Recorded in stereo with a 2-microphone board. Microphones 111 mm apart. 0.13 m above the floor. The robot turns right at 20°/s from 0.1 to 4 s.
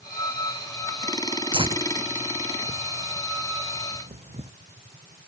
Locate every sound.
1.5 s tearing paper: 50° right (ahead or behind); by 4.5 s 75° right (ahead or behind)